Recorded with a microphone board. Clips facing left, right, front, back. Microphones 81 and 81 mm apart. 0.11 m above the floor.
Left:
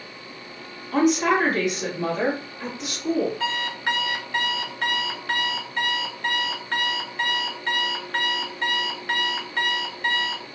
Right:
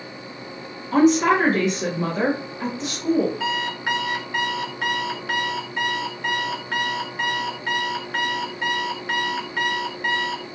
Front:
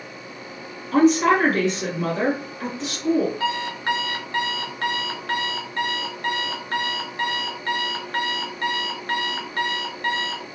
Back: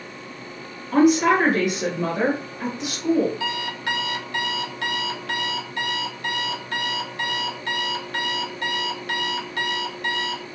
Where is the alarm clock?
5° right, 0.6 m.